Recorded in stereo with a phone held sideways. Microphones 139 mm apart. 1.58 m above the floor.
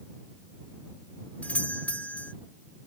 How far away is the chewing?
No chewing in this recording.